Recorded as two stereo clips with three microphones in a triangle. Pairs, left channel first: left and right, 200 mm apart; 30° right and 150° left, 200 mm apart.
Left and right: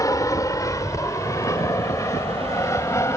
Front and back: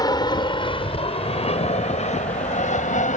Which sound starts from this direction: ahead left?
An aircraft, at 0.0 s.